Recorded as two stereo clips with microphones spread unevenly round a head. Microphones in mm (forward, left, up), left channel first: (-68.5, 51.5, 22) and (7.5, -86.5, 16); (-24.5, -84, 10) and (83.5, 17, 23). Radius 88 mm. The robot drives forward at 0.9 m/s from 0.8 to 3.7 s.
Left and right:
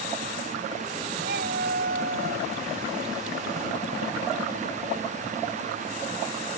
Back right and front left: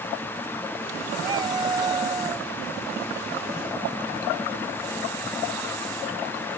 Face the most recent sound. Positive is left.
turn(degrees=-30)